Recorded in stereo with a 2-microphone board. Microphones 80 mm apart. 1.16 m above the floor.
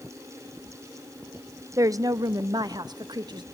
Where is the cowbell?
No cowbell in this recording.